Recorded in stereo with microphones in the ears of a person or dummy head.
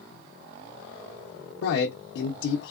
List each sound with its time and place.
1.6 s a man speaking: 70° left (ahead or behind), 0.7 m